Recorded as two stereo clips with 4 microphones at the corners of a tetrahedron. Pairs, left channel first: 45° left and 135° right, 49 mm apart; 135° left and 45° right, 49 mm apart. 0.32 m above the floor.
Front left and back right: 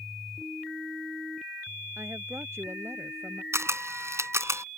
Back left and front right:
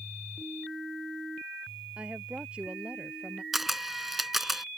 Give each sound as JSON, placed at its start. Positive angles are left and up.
{"t": 2.0, "sound": "a woman speaking", "azimuth_deg": -110}
{"t": 3.5, "sound": "a camera shutter", "azimuth_deg": -130}